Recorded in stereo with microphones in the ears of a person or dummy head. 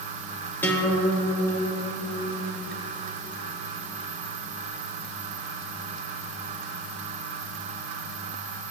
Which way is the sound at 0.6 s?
10° left (ahead or behind).